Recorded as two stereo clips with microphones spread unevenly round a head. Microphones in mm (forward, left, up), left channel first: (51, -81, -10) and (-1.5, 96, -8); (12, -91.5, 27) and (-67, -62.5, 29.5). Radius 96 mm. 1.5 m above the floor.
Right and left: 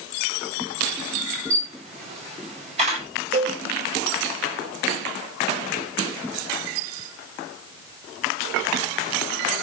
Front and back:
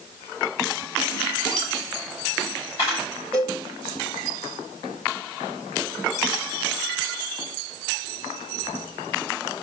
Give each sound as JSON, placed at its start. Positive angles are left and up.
{"t": 1.5, "sound": "a camera shutter", "azimuth_deg": 50, "distance_m": 8.5}
{"t": 3.3, "sound": "a cowbell", "azimuth_deg": 60, "distance_m": 8.0}